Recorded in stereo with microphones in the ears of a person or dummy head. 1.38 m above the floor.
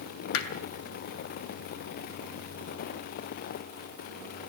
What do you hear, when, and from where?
0.3 s hammering: 65° left (ahead or behind), 2.5 m